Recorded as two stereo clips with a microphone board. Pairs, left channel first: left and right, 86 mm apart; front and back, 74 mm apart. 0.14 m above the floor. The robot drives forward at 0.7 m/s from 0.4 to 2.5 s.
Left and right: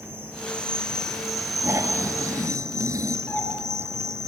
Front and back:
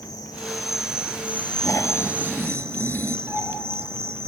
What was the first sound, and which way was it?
An insect, 25° right.